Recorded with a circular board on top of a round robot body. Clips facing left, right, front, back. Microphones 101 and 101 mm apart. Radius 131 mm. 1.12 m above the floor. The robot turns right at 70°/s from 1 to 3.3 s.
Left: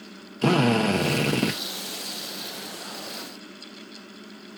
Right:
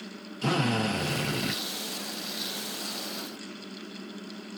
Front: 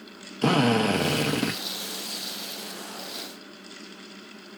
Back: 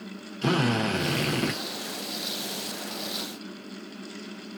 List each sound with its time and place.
0.4 s a drill: 50° left, 0.8 m; by 1.6 s 90° left, 0.8 m